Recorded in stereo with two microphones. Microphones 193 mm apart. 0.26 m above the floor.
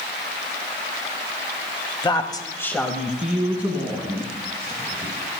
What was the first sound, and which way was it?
A woman speaking, 25° left (ahead or behind).